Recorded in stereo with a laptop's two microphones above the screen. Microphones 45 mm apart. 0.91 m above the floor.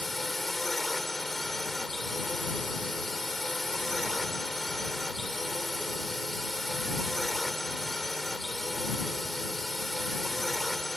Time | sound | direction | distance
0.0 | a drone | centre (ahead or behind) | ?